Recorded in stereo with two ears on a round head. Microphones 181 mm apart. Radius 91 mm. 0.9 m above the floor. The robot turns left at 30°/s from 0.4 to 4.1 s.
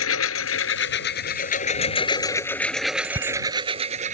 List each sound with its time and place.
0.0 s a lawn mower: 75° left; by 4.1 s 35° right
3.0 s a bicycle bell: 30° right (ahead or behind); by 3.4 s 20° right (ahead or behind)